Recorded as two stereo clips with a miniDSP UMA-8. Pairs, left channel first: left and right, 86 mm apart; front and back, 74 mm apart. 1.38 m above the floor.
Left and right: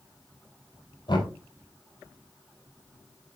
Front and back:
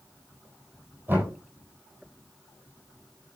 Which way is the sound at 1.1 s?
115° left.